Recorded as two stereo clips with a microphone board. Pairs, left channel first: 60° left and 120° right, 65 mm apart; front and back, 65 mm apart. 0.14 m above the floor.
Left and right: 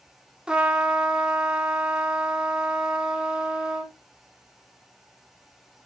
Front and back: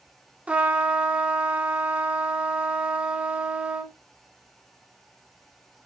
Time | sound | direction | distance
0.5 | a trumpet | 175° right | 1.2 m